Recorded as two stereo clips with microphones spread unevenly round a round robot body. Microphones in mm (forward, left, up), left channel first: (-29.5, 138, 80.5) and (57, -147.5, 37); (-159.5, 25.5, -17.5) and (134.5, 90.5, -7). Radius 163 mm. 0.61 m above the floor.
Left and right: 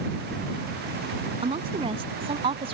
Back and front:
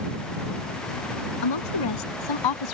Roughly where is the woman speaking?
Behind right.